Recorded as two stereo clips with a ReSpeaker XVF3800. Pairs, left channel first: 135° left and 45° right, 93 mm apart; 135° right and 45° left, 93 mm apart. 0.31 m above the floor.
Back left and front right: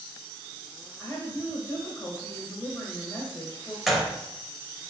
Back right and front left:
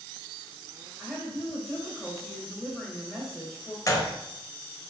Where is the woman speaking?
140° left, 1.0 m.